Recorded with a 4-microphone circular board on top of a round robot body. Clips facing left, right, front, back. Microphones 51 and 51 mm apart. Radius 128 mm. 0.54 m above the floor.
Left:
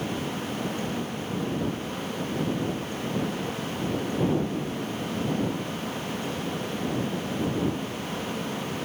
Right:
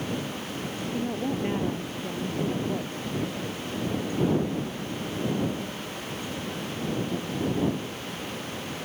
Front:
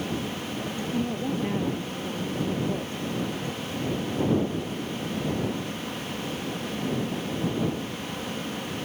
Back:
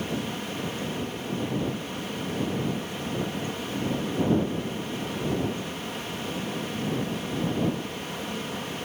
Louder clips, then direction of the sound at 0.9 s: Right 2 dB, front 4 dB; 50° right.